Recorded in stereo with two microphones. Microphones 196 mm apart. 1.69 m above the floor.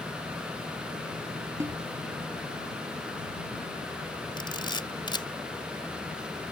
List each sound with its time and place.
1.6 s a snare drum: 15° right (ahead or behind)
4.4 s a camera shutter: 25° left (ahead or behind)